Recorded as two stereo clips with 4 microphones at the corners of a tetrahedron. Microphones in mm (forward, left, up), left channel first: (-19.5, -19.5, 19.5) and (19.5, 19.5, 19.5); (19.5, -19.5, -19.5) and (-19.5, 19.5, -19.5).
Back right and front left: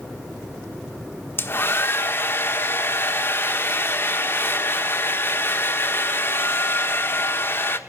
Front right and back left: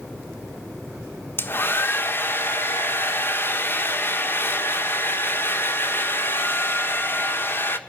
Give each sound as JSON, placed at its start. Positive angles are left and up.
{"t": 1.4, "sound": "a hair dryer", "azimuth_deg": -90, "distance_m": 1.2}